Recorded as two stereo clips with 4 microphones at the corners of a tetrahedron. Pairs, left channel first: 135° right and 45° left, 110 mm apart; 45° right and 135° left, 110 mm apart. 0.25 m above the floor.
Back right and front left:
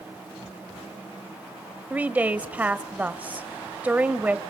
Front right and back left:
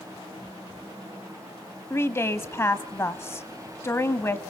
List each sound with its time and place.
1.9 s a woman speaking: 15° right, 1.1 m